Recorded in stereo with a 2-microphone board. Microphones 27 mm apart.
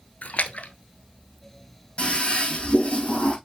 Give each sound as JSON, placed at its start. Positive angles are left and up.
{"t": 0.2, "sound": "a splash", "side_deg": 60, "distance_m": 0.8}
{"t": 2.0, "sound": "a toilet flushing", "side_deg": 45, "distance_m": 5.5}